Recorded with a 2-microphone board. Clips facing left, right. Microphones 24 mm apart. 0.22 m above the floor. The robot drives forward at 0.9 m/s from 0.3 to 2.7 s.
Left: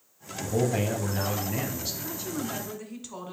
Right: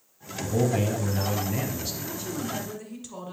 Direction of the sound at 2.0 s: 10° left (ahead or behind).